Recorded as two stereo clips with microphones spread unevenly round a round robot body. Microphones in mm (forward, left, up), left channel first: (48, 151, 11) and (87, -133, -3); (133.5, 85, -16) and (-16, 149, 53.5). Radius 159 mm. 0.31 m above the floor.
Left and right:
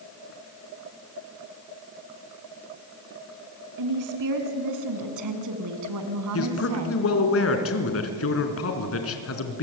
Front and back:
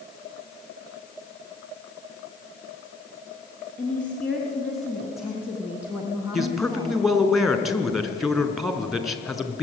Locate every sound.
3.8 s a woman speaking: 95° right, 4.5 m; by 7.0 s 120° right, 3 m
6.3 s a man speaking: 60° left, 4.5 m